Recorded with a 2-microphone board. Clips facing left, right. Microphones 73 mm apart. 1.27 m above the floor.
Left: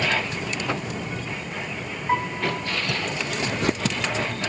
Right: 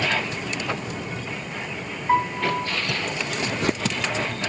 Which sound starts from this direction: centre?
A piano, at 2.1 s.